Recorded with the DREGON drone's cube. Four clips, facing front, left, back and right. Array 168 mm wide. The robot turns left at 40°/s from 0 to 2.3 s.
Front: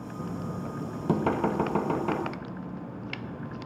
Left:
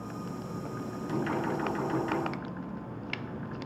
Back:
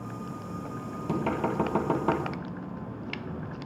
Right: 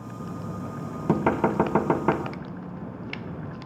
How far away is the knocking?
About 1.8 m.